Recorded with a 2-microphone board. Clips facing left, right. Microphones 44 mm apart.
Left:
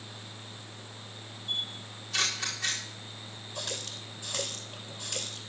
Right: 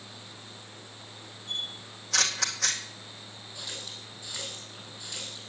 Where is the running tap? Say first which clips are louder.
Left 3 dB; 55° left (ahead or behind), 2.5 m.